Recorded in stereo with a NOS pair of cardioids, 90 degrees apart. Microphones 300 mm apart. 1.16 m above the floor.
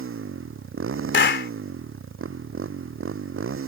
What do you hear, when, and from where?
0.0 s a motorcycle: 45° right
1.1 s a clap: 40° left